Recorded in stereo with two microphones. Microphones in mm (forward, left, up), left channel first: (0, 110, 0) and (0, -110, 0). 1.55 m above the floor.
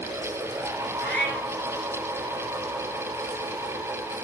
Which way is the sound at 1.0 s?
50° left (ahead or behind).